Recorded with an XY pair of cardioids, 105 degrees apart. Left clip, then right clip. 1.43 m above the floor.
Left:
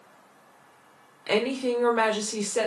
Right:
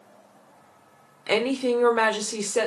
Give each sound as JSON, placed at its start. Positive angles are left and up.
{"t": 1.3, "sound": "a woman speaking", "azimuth_deg": -25, "distance_m": 0.7}